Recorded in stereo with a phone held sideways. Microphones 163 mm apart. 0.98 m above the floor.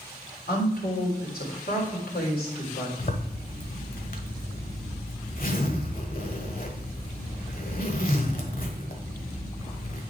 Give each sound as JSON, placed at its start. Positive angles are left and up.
{"t": 0.5, "sound": "a woman speaking", "side_deg": 75, "distance_m": 3.0}
{"t": 3.0, "sound": "a zipper", "side_deg": 60, "distance_m": 1.3}